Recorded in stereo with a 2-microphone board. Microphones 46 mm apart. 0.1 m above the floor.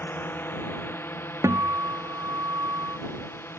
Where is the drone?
45° left (ahead or behind); by 3.6 s 50° left (ahead or behind).